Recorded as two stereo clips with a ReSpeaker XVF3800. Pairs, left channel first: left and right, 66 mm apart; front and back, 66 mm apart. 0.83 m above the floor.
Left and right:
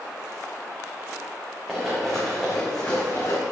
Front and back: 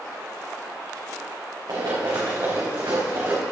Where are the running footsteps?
170° right, 3 m; by 3.4 s 140° left, 3 m.